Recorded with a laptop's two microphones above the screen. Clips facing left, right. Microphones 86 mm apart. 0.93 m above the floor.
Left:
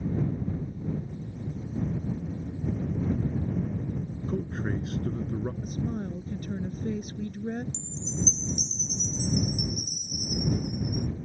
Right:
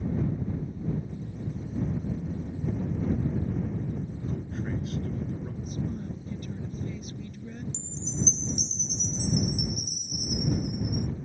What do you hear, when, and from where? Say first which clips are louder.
4.3 s a man speaking: left 4 dB; 50° left (ahead or behind)
5.6 s a woman speaking: left 2 dB; 50° left (ahead or behind)
7.7 s a chime: even; 45° right (ahead or behind)